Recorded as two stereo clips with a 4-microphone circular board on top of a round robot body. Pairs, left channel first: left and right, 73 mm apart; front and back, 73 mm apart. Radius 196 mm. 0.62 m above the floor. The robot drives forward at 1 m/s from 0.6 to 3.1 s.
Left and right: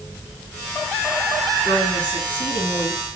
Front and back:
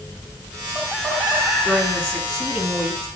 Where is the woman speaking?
75° left, 6 m; by 3.1 s 90° left, 5.5 m.